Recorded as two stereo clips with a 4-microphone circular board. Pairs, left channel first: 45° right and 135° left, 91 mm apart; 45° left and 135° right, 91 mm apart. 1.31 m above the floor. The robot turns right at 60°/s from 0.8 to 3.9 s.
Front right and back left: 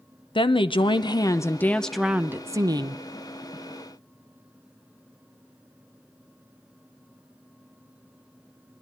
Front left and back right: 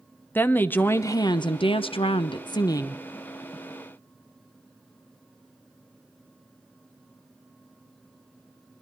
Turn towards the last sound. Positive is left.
turn(degrees=160)